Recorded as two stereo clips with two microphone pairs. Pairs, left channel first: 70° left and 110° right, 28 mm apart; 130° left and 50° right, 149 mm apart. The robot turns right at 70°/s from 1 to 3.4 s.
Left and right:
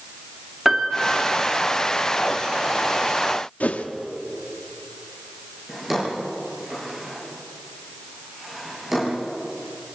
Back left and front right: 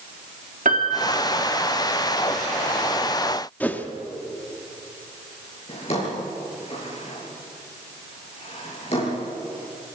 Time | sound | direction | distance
0.7 | a piano | 30° right | 2.5 m
3.6 | a whoosh | 55° left | 1.1 m
5.7 | a drawer | 170° left | 7 m